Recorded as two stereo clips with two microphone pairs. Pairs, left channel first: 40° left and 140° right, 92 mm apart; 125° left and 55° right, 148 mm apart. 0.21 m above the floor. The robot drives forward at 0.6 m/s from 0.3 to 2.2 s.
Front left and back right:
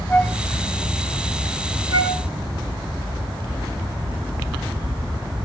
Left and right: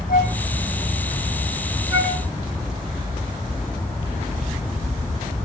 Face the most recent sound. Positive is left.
turn(degrees=-120)